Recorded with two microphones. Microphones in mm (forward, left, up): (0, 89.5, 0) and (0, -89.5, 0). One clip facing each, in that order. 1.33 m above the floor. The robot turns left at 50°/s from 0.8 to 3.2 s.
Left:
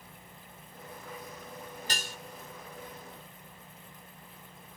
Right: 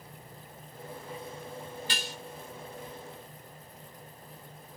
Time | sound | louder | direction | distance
1.9 | dishes clattering | right 1 dB | 45° left (ahead or behind) | ?